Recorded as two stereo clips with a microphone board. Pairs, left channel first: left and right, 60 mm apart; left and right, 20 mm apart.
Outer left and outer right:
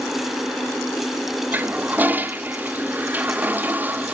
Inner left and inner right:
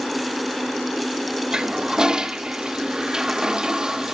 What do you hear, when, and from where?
1.5 s a toilet flushing: 30° right (ahead or behind), 0.6 m